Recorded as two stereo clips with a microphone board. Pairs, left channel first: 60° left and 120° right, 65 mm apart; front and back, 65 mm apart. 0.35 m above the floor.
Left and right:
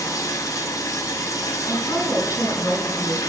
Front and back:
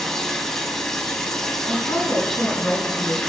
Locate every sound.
0.0 s running water: 80° left, 0.9 m
1.7 s a woman speaking: 15° left, 3 m